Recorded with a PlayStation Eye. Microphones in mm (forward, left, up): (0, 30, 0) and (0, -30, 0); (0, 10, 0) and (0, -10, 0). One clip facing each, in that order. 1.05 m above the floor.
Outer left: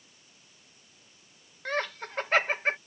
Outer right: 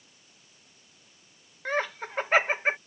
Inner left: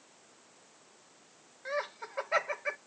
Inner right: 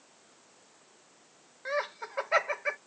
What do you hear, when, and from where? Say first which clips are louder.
1.6 s laughter: outer right 2 dB, inner right 3 dB; 10° right (ahead or behind)